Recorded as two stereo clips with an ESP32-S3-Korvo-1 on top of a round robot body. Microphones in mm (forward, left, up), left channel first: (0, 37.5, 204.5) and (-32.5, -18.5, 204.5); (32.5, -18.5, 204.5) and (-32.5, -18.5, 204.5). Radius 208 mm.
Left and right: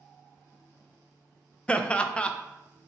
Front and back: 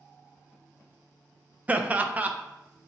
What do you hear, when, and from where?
1.7 s laughter: 125° left, 0.7 m